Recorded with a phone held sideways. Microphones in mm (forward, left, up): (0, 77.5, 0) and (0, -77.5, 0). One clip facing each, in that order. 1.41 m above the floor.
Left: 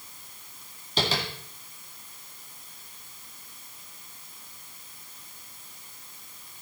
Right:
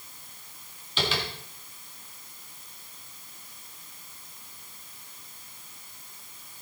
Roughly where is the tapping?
Left.